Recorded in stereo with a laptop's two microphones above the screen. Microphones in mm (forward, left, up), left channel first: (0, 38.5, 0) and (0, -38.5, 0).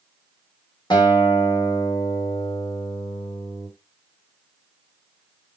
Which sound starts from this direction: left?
A guitar, at 0.9 s.